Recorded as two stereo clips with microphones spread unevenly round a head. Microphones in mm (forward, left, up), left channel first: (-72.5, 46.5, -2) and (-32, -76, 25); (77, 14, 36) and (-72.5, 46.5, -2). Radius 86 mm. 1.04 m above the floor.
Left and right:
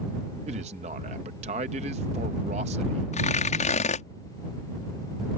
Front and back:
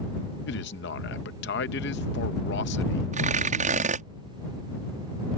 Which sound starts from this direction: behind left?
Tearing paper, at 3.1 s.